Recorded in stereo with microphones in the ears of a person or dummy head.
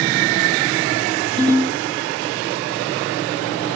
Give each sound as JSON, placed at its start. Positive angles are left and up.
{"t": 1.4, "sound": "a ringtone", "side_deg": -35, "distance_m": 2.5}